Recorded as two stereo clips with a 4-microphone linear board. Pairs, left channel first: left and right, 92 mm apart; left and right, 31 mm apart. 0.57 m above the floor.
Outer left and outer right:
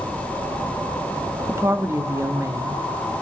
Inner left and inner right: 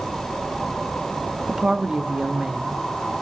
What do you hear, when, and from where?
1.5 s a woman speaking: 30° right (ahead or behind), 0.7 m